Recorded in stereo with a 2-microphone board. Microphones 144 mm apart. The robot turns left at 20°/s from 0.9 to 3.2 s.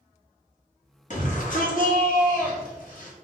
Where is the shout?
110° left, 1.0 m; by 3.1 s 70° left, 1.0 m.